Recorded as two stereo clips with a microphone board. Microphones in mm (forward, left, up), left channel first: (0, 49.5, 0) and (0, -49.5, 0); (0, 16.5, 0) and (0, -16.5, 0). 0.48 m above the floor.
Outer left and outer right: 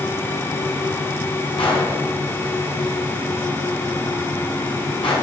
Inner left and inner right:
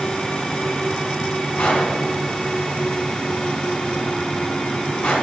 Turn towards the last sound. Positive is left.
turn(degrees=55)  # may be behind; listen again after turning